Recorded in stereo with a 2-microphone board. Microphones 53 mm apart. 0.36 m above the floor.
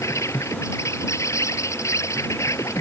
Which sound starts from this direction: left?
An insect, at 0.0 s.